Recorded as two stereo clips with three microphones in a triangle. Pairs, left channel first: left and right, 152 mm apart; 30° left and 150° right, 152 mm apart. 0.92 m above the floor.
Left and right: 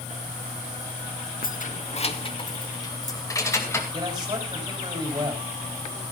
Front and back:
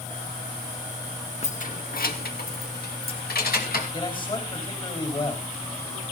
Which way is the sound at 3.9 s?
30° right.